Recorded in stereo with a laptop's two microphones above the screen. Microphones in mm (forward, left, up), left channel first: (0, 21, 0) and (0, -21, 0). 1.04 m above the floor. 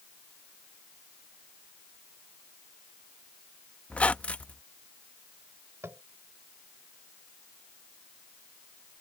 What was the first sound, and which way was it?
A squeak, 30° left (ahead or behind).